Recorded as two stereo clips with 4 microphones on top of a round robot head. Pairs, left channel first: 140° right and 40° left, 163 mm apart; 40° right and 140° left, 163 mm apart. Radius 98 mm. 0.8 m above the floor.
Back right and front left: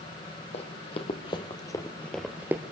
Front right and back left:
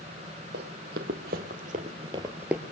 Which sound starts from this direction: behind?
Running footsteps, at 0.5 s.